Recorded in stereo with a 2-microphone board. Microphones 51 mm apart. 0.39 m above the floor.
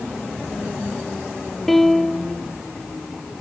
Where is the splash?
I don't hear a splash.